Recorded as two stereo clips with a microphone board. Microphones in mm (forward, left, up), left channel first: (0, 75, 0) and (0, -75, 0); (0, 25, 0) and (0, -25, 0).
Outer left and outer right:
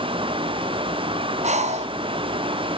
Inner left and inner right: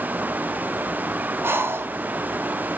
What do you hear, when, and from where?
1.4 s breathing: 50° right (ahead or behind), 0.6 m